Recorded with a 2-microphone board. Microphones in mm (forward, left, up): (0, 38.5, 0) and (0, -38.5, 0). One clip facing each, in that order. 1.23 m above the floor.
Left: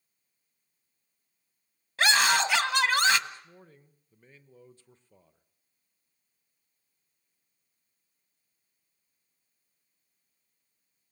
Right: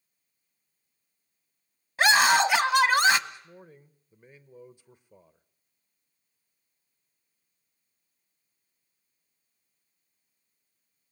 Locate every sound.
2.0 s a scream: 15° right (ahead or behind), 1.4 m
3.3 s a man speaking: 15° right (ahead or behind), 1.1 m